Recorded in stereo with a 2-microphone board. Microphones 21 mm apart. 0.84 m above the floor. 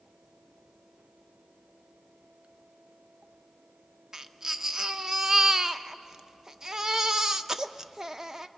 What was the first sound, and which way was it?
A baby crying, 20° right (ahead or behind).